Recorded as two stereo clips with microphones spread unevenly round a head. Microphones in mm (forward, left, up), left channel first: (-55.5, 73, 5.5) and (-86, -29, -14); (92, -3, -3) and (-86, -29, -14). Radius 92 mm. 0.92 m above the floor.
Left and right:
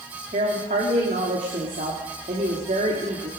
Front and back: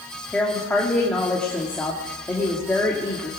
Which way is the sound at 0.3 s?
75° right.